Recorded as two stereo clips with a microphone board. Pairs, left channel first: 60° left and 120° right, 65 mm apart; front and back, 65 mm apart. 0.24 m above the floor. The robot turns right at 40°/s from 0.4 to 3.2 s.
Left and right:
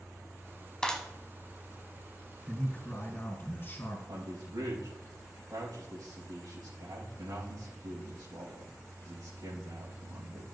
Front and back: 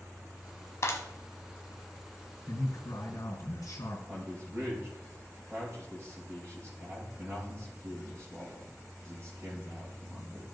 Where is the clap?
15° right, 1.2 m; by 1.0 s 5° right, 1.2 m.